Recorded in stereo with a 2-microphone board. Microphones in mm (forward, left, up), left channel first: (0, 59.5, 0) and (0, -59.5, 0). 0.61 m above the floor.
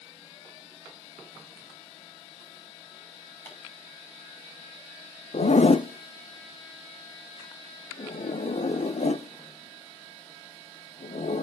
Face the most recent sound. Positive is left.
turn(degrees=65)  # may be behind; listen again after turning